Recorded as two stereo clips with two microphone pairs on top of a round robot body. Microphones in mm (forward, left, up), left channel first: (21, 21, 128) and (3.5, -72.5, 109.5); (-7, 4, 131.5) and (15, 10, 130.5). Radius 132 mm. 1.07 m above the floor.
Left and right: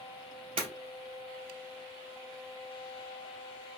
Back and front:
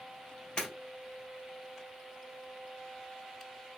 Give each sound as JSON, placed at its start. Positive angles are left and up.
{"t": 0.6, "sound": "breaking glass", "azimuth_deg": -125, "distance_m": 2.5}